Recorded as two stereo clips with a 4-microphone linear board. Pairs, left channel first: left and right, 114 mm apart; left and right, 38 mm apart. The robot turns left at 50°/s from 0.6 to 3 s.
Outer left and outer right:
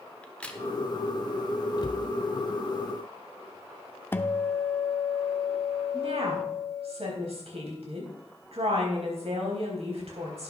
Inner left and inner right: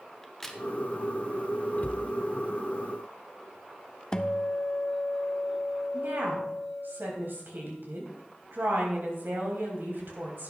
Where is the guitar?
20° left (ahead or behind), 0.6 m.